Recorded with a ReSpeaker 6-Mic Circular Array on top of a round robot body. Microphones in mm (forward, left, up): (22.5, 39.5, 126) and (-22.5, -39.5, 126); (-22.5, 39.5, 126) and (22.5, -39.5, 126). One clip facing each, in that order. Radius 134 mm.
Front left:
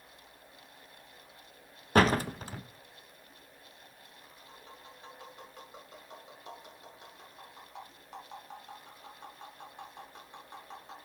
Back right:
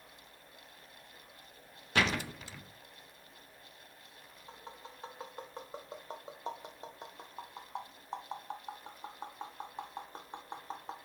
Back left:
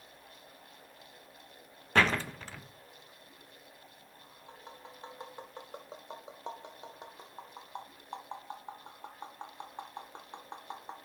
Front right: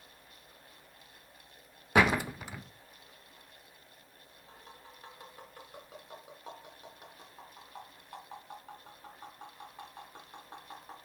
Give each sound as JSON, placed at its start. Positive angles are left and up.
{"t": 1.9, "sound": "a door slam", "azimuth_deg": 15, "distance_m": 0.6}
{"t": 4.5, "sound": "tapping", "azimuth_deg": -175, "distance_m": 0.7}